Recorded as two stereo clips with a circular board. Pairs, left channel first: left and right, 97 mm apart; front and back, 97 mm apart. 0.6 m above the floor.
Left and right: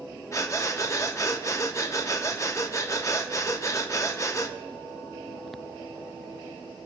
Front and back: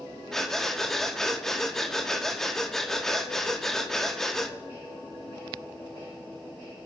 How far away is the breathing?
About 0.9 m.